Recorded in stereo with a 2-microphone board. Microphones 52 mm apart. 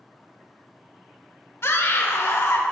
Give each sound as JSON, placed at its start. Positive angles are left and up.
{"t": 1.6, "sound": "a scream", "side_deg": 60, "distance_m": 1.6}